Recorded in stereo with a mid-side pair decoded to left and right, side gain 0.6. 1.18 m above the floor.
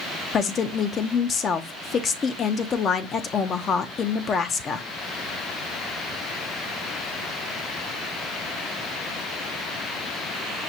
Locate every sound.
0.3 s a woman speaking: 40° left, 0.6 m